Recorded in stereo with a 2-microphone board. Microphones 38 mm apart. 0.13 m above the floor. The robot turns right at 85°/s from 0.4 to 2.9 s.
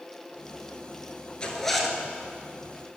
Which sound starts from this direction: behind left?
A zipper, at 1.4 s.